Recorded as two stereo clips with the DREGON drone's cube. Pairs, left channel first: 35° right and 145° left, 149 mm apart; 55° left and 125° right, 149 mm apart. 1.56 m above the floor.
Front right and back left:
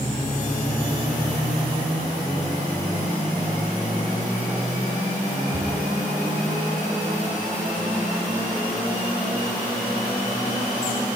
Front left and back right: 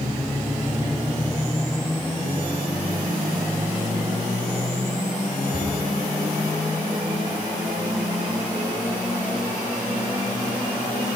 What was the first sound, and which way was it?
A cupboard door, 75° left.